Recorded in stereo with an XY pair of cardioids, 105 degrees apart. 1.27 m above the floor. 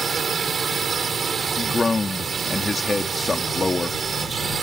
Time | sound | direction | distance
0.0 | a drone | 45° right | ?
1.6 | a man speaking | 20° left | ?